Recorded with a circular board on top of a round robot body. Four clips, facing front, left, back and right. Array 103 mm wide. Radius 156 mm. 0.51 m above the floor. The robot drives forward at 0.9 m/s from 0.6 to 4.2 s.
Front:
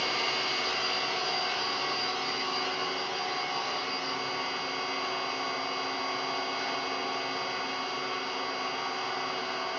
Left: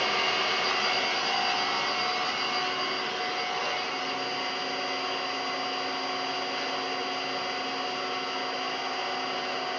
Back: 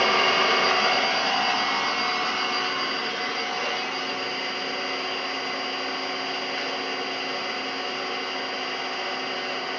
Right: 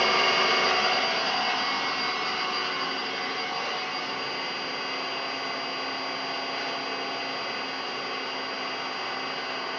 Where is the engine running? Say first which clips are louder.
Right 5 dB, back 11 dB; 160° right, 0.8 m; by 9.8 s 175° right, 4 m.